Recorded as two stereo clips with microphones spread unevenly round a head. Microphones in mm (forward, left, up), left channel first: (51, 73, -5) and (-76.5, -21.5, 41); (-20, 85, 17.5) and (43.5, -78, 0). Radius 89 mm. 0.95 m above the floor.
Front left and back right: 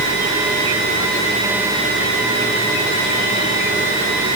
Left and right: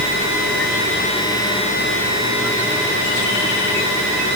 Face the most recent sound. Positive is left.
No sound to turn to.